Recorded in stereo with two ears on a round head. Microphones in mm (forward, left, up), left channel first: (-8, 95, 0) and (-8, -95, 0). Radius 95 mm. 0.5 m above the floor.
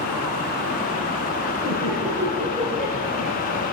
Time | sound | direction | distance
1.6 | laughter | 25° right (ahead or behind) | 8.5 m